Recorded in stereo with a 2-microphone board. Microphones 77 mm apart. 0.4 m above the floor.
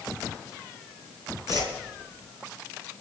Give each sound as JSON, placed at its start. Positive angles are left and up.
{"t": 1.5, "sound": "a whoosh", "side_deg": -55, "distance_m": 4.0}